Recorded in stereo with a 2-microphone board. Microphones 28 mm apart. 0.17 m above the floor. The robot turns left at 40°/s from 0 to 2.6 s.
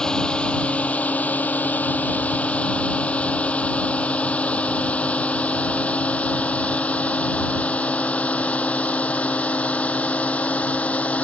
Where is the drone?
25° left (ahead or behind); by 11.2 s 55° left (ahead or behind).